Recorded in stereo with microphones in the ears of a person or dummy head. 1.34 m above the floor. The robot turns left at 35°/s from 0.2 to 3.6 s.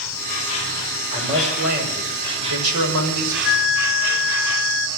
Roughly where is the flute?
Left.